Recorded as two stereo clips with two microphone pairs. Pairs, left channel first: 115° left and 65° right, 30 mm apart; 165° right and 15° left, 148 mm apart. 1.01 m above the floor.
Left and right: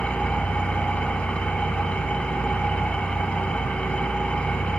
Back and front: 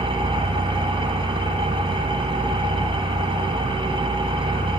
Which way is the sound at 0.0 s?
70° left.